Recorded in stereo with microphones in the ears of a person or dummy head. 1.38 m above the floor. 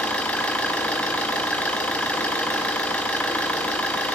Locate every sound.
0.0 s an engine running: 10° left (ahead or behind), 0.9 m